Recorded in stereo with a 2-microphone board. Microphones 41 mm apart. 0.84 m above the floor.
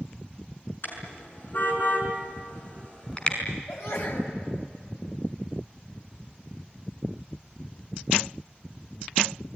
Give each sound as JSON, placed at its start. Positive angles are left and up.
{"t": 0.8, "sound": "a car horn", "side_deg": 55, "distance_m": 6.0}
{"t": 3.7, "sound": "a sneeze", "side_deg": 75, "distance_m": 5.5}